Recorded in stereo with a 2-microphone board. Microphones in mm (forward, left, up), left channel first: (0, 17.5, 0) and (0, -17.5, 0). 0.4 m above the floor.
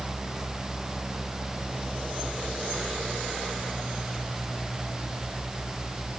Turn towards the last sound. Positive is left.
No sound to turn to.